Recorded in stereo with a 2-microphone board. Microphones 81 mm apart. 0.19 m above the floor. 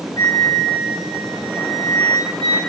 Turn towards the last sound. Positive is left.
turn(degrees=-75)  # may be behind; listen again after turning